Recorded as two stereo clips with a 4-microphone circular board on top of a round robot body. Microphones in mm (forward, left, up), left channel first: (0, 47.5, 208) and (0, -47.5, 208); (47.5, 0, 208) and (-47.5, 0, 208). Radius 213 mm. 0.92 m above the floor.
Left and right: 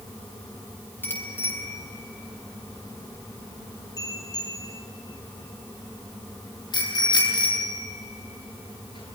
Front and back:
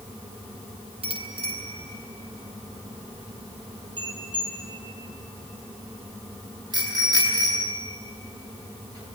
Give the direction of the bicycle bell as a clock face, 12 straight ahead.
7 o'clock.